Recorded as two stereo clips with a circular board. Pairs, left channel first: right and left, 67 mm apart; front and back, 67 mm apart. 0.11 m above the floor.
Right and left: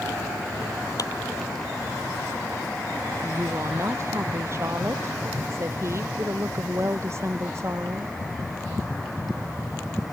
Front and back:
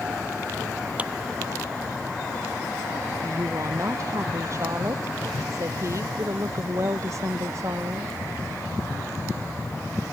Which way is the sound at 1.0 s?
115° right.